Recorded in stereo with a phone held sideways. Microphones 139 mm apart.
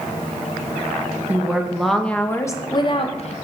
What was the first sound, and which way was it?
A woman speaking, 10° right (ahead or behind).